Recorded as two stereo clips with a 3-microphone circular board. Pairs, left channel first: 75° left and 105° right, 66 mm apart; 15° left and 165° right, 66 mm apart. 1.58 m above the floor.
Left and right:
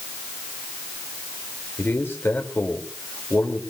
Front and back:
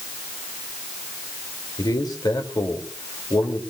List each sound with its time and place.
1.8 s a man speaking: 20° left, 3 m